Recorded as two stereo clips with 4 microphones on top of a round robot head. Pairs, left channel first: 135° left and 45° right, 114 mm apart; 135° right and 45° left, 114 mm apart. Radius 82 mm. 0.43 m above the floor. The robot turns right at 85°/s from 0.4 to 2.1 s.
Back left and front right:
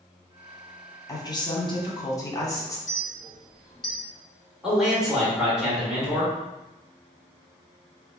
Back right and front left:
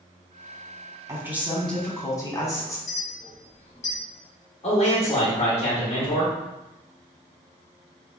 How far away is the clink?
About 1.5 m.